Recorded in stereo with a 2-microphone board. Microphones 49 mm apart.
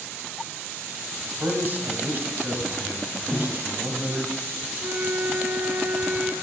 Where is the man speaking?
45° right (ahead or behind), 2 m.